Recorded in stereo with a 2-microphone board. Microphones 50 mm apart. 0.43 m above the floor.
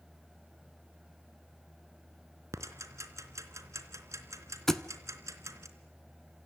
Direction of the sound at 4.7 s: 10° left (ahead or behind).